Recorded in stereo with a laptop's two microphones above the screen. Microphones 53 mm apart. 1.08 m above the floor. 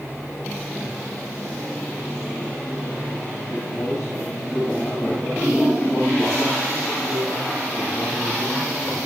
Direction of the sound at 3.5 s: 80° left.